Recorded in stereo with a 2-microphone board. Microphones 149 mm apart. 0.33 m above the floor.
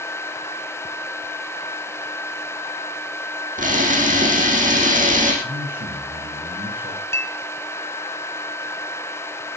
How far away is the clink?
About 1.6 m.